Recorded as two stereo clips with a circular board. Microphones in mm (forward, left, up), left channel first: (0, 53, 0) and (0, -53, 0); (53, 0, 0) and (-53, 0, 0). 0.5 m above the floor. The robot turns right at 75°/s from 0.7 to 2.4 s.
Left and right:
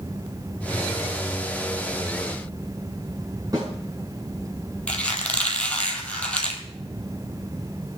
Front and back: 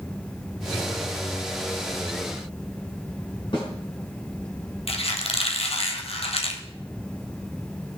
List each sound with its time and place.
3.5 s a snare drum: 40° right, 4.5 m
4.9 s a squeak: 10° left, 1.6 m